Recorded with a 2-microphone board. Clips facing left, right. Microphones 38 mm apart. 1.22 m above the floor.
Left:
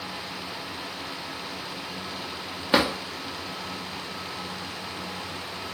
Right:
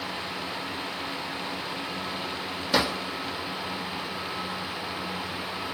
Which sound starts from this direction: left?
A drawer, at 2.7 s.